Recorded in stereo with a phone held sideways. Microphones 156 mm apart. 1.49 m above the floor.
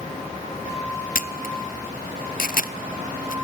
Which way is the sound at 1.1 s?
65° left (ahead or behind).